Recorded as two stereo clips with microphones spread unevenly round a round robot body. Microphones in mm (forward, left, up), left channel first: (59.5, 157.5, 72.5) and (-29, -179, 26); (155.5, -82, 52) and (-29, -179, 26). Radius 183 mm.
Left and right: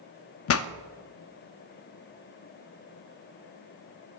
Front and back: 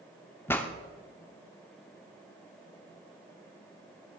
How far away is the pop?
About 0.6 m.